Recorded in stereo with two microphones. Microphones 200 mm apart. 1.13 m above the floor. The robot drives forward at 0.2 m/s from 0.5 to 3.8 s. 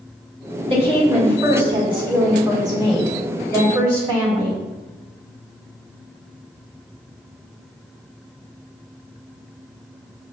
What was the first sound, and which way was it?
A woman speaking, 25° right (ahead or behind).